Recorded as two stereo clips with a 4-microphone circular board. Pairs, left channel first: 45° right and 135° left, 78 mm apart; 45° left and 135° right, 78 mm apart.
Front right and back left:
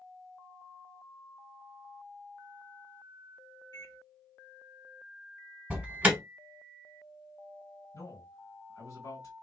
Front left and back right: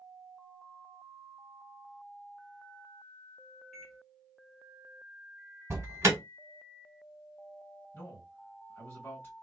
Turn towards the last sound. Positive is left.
turn(degrees=-15)